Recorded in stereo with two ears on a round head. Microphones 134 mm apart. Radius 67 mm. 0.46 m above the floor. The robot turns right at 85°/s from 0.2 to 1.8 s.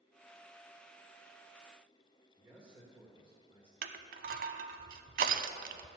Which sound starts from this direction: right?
Crushing, at 3.8 s.